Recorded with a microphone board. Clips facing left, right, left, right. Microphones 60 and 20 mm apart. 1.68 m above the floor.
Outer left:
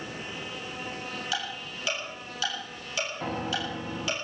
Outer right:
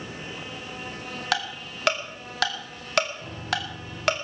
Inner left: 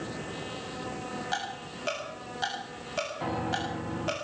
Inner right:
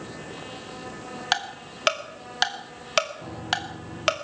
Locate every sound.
1.3 s ticking: 70° right (ahead or behind), 2.5 m
3.2 s a piano: 65° left (ahead or behind), 1.5 m